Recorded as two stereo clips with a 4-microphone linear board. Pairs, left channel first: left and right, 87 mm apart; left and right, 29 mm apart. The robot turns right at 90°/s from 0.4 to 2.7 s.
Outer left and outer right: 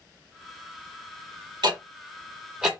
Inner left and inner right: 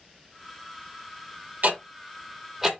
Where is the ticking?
60° right (ahead or behind), 1.0 m; by 2.7 s 5° right (ahead or behind), 1.0 m.